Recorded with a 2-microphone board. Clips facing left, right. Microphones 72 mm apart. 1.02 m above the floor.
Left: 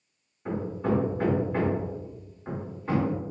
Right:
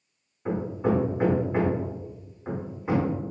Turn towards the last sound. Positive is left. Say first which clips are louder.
# right 2 dB
turn(degrees=-15)  # may be behind; listen again after turning